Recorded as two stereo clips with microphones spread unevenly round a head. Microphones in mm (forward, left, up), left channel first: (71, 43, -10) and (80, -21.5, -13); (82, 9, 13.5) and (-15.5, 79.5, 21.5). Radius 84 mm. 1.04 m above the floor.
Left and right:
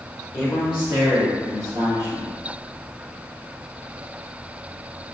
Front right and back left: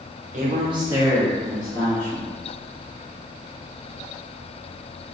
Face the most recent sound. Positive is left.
turn(degrees=-90)